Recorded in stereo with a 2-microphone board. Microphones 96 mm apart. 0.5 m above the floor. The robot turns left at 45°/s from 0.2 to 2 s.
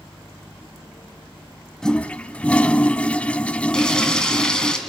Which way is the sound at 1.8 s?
5° left (ahead or behind).